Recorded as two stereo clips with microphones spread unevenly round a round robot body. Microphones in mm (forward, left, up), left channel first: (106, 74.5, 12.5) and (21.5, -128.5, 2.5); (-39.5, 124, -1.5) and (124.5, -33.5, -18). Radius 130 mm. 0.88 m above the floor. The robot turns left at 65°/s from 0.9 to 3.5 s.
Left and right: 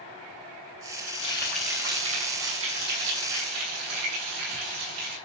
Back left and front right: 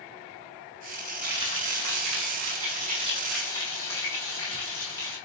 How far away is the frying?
About 6.5 m.